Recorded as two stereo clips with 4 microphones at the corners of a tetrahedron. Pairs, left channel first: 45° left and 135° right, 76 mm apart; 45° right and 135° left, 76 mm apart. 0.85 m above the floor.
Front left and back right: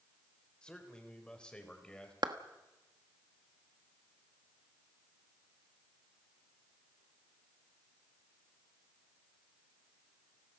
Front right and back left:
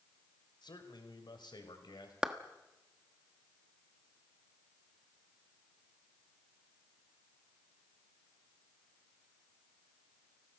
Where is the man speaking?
35° right, 3 m.